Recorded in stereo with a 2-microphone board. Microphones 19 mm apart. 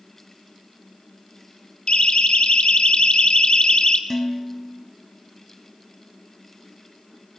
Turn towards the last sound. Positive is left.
turn(degrees=15)  # may be behind; listen again after turning